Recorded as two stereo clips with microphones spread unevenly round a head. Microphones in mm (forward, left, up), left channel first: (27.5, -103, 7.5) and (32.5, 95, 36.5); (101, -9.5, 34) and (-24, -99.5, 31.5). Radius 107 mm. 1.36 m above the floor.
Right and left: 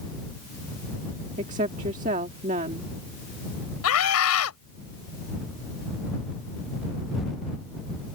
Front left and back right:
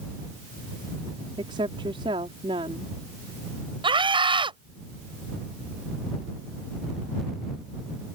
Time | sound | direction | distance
1.4 | a woman speaking | 150° left | ?
3.8 | a scream | 85° right | ?